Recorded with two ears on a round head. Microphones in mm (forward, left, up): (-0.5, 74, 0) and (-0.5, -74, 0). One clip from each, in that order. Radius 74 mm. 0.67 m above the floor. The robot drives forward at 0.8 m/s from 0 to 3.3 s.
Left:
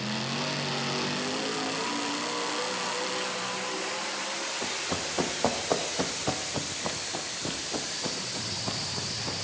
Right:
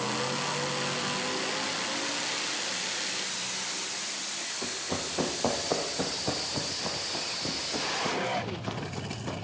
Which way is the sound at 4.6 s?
75° left (ahead or behind).